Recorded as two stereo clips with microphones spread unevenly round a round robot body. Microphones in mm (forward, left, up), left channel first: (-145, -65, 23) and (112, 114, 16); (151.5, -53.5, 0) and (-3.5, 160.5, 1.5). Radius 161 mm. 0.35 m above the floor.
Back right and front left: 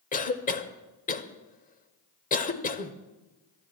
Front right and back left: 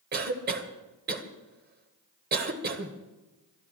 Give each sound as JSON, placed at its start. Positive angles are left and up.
{"t": 0.1, "sound": "a cough", "azimuth_deg": 165, "distance_m": 1.4}